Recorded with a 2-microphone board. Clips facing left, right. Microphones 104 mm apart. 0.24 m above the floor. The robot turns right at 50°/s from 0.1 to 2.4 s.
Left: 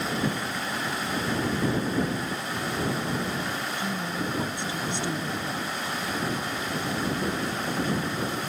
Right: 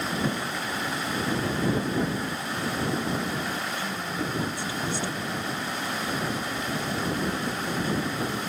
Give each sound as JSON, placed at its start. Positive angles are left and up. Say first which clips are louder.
{"t": 3.8, "sound": "a woman speaking", "louder": "left 1 dB", "side_deg": 25}